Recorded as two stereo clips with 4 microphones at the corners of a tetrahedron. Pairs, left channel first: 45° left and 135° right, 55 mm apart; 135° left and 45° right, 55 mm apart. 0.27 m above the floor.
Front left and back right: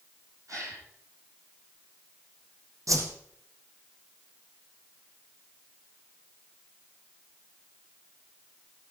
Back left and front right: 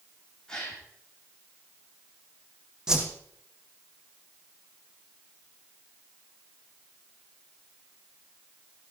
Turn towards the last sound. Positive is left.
turn(degrees=-120)